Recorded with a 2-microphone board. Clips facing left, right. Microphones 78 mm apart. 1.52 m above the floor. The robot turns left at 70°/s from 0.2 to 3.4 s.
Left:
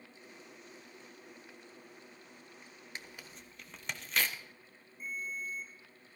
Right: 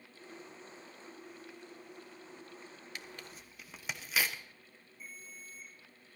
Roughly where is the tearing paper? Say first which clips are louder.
Left 1 dB; left.